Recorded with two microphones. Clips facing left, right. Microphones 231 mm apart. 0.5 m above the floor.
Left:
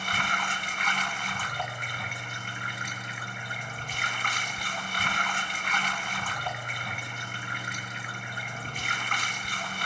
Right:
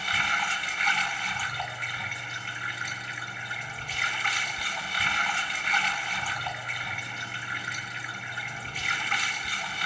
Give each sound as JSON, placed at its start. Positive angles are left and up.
{"t": 0.0, "sound": "running water", "side_deg": 50, "distance_m": 2.0}